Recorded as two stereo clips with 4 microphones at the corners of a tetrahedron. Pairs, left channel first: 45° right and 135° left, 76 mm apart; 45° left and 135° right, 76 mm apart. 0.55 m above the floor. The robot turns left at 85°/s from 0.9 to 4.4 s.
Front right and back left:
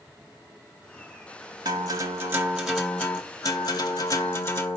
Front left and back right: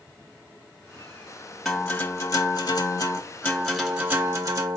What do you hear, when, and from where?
1.6 s a guitar: 140° left, 1.3 m; by 4.8 s 95° right, 1.3 m